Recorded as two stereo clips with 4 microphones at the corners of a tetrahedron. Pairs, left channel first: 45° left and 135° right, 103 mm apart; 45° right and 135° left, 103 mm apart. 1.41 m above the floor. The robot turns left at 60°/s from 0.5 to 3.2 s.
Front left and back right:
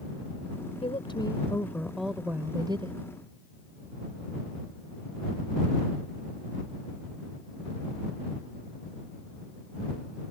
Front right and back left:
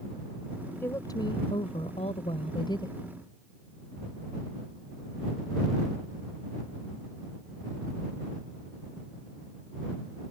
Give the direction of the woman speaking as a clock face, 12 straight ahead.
11 o'clock.